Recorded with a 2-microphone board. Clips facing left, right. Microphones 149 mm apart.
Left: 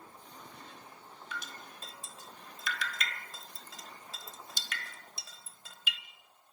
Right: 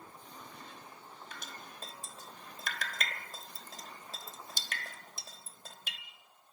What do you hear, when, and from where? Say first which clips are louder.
1.3 s dripping: left 5 dB; 45° right (ahead or behind), 1.3 m